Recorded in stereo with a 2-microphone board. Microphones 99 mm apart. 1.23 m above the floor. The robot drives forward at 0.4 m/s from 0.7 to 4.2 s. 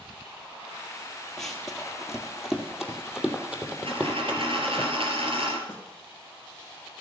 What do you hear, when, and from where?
1.4 s running footsteps: 5° left (ahead or behind), 2 m; by 4.8 s 15° right (ahead or behind), 3 m
3.9 s a dropped coin: 70° right (ahead or behind), 3 m
5.7 s a snare drum: 25° left (ahead or behind), 2 m